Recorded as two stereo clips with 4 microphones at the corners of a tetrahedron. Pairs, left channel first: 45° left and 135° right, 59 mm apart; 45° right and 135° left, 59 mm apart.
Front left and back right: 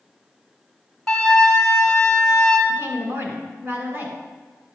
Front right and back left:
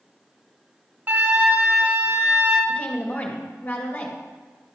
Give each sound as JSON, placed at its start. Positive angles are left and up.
{"t": 1.1, "sound": "a flute", "azimuth_deg": 125, "distance_m": 1.6}
{"t": 2.7, "sound": "a woman speaking", "azimuth_deg": -100, "distance_m": 1.8}